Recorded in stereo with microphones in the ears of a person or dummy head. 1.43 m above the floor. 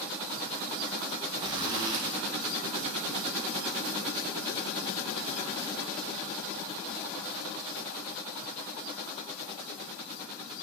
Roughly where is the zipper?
Right.